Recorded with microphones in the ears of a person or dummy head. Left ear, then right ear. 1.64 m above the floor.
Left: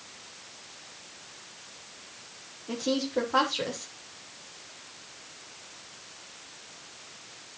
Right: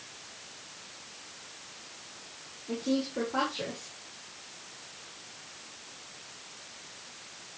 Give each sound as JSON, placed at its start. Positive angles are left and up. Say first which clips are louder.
{"t": 2.7, "sound": "a woman speaking", "louder": "left 3 dB", "side_deg": 70, "distance_m": 3.0}